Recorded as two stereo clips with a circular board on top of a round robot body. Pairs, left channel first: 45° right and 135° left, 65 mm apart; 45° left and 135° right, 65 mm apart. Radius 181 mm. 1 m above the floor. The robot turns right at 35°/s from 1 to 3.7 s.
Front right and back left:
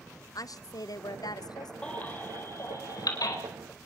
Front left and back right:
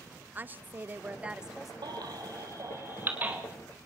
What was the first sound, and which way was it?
A woman speaking, 70° right.